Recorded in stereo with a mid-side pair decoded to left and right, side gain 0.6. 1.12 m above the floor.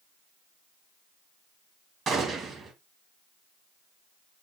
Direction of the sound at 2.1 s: 40° right.